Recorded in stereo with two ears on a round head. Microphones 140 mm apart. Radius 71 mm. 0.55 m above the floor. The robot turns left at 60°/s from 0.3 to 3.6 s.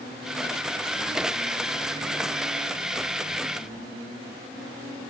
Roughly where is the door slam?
No door slam in this recording.